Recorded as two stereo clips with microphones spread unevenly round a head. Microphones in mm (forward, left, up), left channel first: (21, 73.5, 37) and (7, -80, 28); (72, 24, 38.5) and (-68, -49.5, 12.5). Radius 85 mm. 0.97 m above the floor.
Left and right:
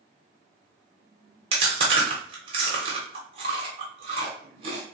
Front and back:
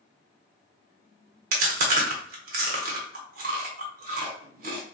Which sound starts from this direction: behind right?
Chewing, at 1.5 s.